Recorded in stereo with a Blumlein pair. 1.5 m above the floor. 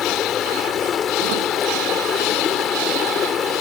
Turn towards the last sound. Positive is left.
turn(degrees=25)